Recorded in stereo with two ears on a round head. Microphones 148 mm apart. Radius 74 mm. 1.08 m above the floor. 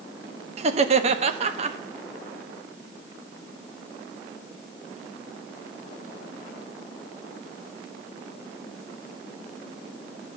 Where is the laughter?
40° right (ahead or behind), 1.3 m.